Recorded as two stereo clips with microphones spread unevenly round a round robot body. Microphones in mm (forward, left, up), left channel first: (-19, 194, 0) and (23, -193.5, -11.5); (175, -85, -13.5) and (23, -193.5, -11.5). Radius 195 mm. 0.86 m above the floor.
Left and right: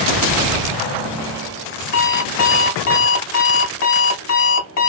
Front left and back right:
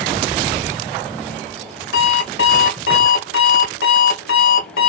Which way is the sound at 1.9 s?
45° left.